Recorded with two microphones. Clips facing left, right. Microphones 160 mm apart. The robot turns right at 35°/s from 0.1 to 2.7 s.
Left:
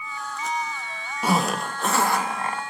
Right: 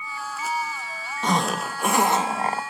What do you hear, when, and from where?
1.2 s a zipper: 170° left, 1.4 m; by 2.6 s 140° right, 1.4 m